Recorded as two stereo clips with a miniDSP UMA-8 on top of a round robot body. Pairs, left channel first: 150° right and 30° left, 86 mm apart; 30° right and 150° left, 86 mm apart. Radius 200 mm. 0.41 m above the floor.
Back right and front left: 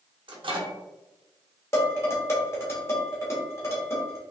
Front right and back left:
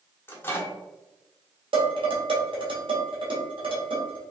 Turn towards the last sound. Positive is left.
turn(degrees=150)